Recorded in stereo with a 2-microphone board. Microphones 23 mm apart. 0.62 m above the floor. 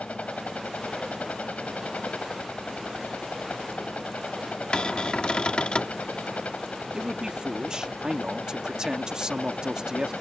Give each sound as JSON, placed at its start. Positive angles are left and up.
{"t": 0.0, "sound": "a helicopter", "side_deg": 70}
{"t": 4.7, "sound": "a cupboard door", "side_deg": 45}
{"t": 6.9, "sound": "a man speaking", "side_deg": -30}